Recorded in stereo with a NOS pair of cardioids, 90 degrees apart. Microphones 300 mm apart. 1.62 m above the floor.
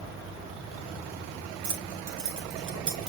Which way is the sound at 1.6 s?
50° right.